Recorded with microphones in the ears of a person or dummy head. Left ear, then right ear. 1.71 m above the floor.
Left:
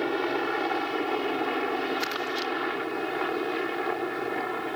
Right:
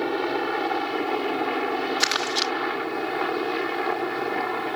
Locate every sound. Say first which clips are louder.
0.0 s a helicopter: right 2 dB; 5° left (ahead or behind); by 4.8 s 10° right (ahead or behind)
2.0 s crumpling: right 6 dB; 45° right (ahead or behind)